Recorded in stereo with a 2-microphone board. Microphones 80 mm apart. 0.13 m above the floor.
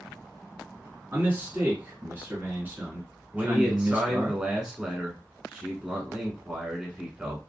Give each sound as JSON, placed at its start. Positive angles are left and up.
{"t": 1.1, "sound": "a man speaking", "side_deg": -25, "distance_m": 1.4}
{"t": 3.3, "sound": "a man speaking", "side_deg": -10, "distance_m": 1.1}